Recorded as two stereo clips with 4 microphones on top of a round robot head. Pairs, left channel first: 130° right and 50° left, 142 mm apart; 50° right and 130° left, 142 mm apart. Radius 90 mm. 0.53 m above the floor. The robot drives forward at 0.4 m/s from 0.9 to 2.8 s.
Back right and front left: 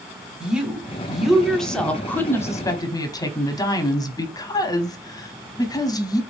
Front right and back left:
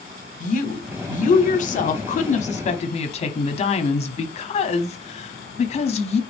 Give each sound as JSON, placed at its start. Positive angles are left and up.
{"t": 0.4, "sound": "a woman speaking", "azimuth_deg": -35, "distance_m": 1.3}